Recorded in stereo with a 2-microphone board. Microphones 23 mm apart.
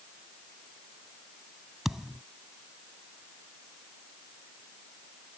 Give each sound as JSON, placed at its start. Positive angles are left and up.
{"t": 1.9, "sound": "a thud", "side_deg": -15}